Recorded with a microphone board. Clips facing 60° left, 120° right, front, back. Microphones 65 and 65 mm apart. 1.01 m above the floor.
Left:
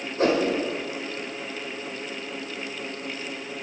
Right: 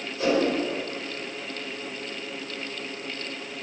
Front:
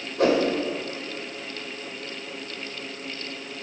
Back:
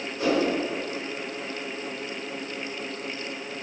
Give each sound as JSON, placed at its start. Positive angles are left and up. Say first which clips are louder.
{"t": 0.2, "sound": "a whoosh", "louder": "left 1 dB, front 3 dB", "azimuth_deg": 20, "distance_m": 1.5}